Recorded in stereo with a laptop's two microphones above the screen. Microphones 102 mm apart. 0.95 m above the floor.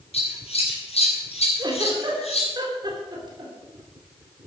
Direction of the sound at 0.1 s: 80° left.